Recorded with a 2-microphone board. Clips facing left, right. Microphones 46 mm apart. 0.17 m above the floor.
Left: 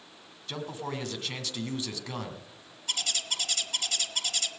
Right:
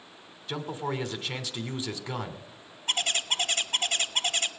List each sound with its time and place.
0.5 s a man speaking: 10° right (ahead or behind), 1.5 m
2.9 s a bird: 35° right (ahead or behind), 0.6 m